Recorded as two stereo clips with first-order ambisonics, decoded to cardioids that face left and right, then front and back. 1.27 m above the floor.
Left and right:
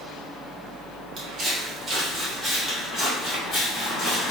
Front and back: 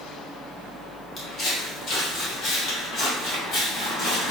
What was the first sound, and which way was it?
Footsteps, 35° right.